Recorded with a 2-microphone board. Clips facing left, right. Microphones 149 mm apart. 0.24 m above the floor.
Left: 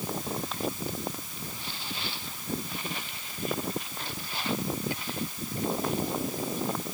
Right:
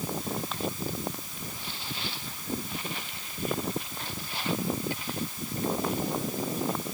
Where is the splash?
I don't hear a splash.